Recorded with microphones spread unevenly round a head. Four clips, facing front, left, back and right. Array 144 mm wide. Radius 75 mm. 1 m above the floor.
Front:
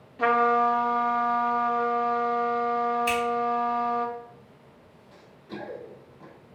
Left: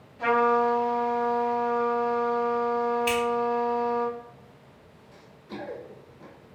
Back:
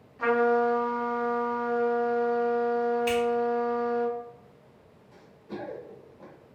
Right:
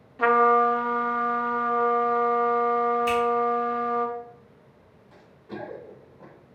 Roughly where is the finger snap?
Behind right.